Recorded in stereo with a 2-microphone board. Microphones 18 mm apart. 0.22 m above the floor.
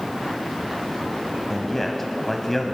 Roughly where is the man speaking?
Centre.